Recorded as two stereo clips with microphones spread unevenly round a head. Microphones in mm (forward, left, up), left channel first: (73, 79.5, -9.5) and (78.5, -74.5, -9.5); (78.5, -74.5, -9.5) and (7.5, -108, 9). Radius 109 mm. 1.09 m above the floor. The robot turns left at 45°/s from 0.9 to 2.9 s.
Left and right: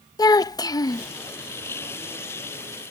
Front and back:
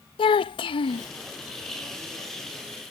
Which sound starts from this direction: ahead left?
A child speaking, at 0.2 s.